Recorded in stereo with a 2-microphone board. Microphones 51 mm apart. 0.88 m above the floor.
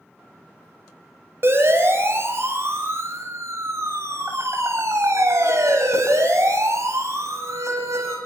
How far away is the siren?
About 6 m.